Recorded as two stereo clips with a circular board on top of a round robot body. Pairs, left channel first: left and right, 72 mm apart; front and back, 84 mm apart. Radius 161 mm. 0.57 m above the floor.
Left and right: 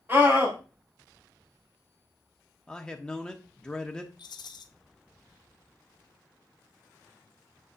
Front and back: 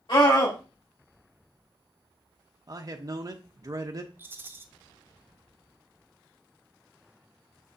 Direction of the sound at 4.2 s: 115° left.